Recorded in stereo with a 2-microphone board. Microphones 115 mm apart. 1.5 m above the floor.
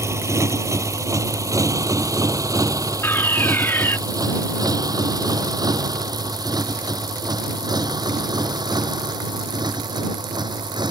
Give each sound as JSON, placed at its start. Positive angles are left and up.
{"t": 0.0, "sound": "a motorcycle", "side_deg": -25}
{"t": 3.0, "sound": "a fire alarm", "side_deg": 20}